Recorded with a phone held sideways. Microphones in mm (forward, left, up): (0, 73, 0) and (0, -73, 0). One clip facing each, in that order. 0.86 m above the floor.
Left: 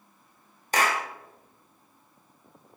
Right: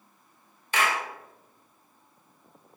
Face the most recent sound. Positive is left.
turn(degrees=40)  # may be behind; listen again after turning